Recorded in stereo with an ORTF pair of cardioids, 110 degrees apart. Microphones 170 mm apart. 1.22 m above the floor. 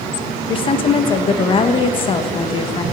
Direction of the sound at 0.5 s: 30° left.